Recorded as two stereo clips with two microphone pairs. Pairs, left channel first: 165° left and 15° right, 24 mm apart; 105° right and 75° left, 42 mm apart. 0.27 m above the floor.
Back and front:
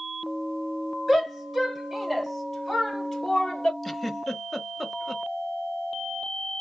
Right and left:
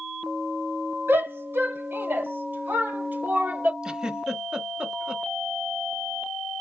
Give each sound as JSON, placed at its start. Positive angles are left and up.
{"t": 1.1, "sound": "a shout", "azimuth_deg": 70, "distance_m": 3.0}
{"t": 3.8, "sound": "a giggle", "azimuth_deg": 105, "distance_m": 0.9}